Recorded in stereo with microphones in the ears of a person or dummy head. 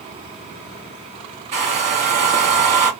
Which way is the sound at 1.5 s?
35° right (ahead or behind).